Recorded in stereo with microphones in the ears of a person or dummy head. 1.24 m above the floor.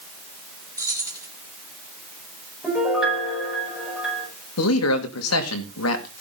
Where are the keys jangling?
15° right (ahead or behind), 2 m.